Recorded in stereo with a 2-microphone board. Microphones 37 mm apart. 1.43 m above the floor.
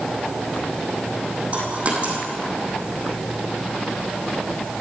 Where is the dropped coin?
35° right (ahead or behind), 3 m.